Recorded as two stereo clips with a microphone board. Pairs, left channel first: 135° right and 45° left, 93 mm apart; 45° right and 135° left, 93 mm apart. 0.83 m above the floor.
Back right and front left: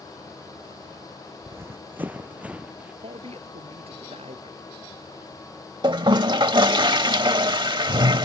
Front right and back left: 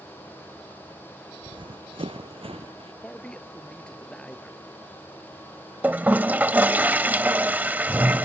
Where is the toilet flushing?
65° left.